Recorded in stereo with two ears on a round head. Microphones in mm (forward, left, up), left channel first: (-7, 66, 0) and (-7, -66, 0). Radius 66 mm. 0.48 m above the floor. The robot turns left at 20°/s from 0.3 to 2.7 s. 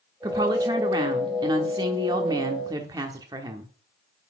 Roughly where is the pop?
I don't hear a pop.